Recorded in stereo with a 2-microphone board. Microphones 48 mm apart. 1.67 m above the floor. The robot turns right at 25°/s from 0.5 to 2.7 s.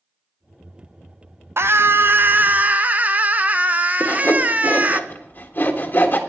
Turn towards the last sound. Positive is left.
turn(degrees=40)  # may be behind; listen again after turning